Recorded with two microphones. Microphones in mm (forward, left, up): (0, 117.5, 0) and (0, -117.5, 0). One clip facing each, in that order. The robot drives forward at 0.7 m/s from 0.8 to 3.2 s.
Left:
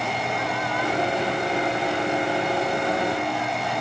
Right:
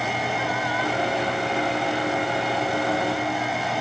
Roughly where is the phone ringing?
I don't hear a phone ringing.